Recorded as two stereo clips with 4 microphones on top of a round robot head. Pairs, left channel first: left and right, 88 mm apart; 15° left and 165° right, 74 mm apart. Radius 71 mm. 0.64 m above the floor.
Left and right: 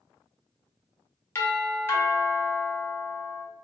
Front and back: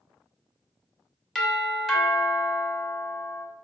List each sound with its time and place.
1.4 s a doorbell: 90° left, 1.4 m